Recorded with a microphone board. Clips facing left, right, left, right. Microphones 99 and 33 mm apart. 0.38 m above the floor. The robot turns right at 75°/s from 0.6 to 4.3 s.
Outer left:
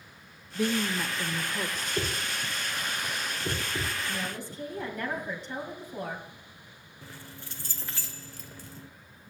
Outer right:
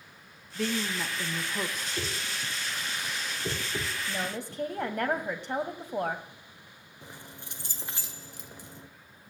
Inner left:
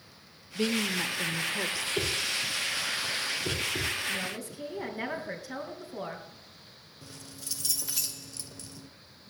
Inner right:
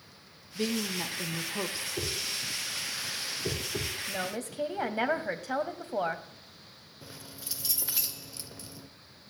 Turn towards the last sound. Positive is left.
turn(degrees=-20)  # may be behind; listen again after turning